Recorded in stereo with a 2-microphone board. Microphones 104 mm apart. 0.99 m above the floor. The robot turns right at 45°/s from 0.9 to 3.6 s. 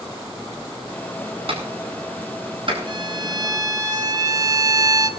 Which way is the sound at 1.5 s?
65° right (ahead or behind).